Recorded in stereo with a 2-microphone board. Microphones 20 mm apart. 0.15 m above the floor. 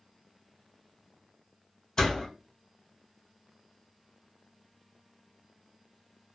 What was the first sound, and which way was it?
A door slam, 35° left (ahead or behind).